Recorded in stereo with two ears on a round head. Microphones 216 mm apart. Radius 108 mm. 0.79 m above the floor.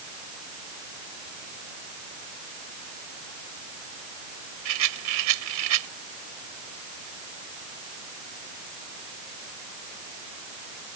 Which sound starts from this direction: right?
A rattle, at 4.7 s.